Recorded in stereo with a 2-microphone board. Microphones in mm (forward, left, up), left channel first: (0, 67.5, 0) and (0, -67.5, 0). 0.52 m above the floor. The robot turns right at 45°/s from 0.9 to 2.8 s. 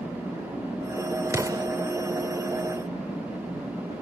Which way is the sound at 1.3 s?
20° right (ahead or behind).